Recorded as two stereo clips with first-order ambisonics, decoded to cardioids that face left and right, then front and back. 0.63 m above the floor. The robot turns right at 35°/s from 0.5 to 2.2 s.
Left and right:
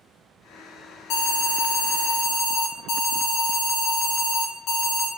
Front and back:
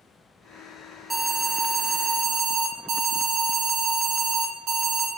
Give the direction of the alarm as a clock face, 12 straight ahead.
9 o'clock.